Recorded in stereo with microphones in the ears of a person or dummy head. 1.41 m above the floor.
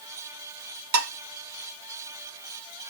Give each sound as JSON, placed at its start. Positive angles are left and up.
{"t": 0.9, "sound": "dishes clattering", "side_deg": -65, "distance_m": 0.9}